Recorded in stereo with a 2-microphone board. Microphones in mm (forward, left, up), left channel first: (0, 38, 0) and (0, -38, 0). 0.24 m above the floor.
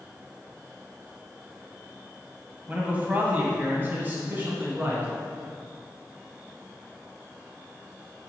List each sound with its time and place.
2.7 s a man speaking: 20° right (ahead or behind), 1.6 m; by 5.1 s 25° right (ahead or behind), 3 m